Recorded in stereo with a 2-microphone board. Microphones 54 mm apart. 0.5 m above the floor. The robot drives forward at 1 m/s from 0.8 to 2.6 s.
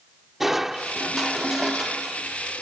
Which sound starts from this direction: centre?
Crushing, at 0.4 s.